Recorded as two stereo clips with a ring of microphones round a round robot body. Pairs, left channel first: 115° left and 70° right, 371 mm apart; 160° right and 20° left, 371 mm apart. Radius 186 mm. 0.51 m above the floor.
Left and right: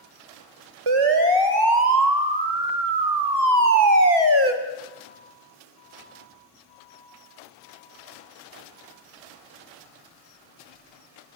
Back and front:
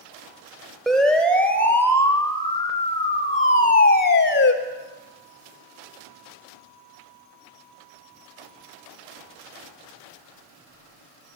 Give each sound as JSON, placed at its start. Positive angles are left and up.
{"t": 0.9, "sound": "a siren", "azimuth_deg": -70, "distance_m": 3.0}